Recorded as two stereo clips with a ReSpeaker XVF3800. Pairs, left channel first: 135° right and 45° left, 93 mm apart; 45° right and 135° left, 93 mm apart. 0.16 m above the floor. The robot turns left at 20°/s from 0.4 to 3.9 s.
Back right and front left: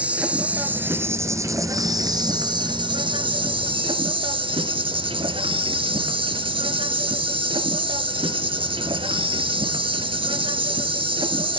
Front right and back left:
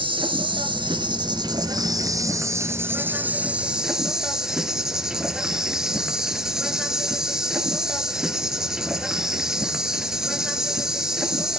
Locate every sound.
0.0 s an insect: 120° left, 1.0 m; by 11.6 s 50° left, 1.0 m